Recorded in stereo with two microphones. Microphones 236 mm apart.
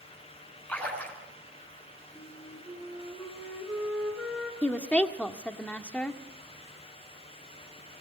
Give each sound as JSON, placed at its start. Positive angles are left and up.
{"t": 0.7, "sound": "a splash", "side_deg": 5, "distance_m": 6.5}
{"t": 2.1, "sound": "a flute", "side_deg": 0, "distance_m": 5.5}
{"t": 4.6, "sound": "a woman speaking", "side_deg": 5, "distance_m": 1.6}